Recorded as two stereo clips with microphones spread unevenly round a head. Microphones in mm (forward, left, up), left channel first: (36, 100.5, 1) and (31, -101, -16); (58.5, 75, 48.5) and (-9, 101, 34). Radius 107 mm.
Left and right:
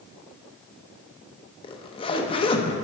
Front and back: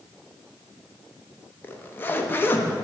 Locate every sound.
1.6 s a zipper: 30° left, 0.7 m